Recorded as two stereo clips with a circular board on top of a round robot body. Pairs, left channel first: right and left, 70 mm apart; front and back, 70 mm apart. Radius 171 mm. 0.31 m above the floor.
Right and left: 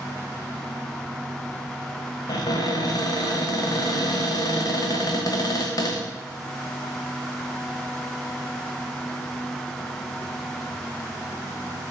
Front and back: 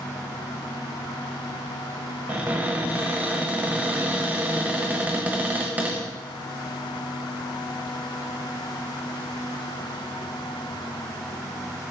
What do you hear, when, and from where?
2.3 s a cupboard door: 115° right, 1.3 m